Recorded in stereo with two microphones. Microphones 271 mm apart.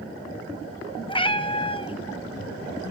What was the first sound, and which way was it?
A cat meowing, 20° left (ahead or behind).